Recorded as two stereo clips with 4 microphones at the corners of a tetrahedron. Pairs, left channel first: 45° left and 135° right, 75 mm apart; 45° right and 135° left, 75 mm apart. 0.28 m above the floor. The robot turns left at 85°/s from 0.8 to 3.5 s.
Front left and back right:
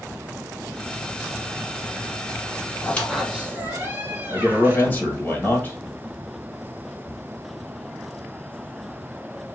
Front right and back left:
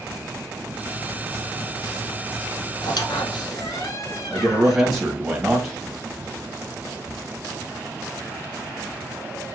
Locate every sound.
2.8 s a squeak: 15° right, 1.0 m; by 4.9 s 75° right, 1.0 m
4.3 s a man speaking: 60° left, 1.3 m